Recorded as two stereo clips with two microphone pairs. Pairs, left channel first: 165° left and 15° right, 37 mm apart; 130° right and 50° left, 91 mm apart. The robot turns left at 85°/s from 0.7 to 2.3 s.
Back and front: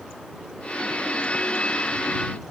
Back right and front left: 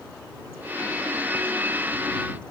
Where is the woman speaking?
I don't hear a woman speaking.